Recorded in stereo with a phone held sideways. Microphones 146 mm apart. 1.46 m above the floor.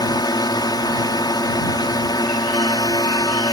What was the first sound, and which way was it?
A drone, 30° left (ahead or behind).